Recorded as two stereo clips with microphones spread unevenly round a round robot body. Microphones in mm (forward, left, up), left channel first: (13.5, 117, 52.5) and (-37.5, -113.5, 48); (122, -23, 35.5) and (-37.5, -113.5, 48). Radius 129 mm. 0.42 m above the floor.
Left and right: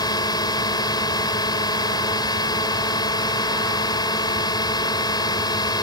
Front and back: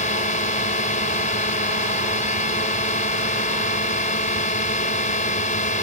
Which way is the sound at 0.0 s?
10° left.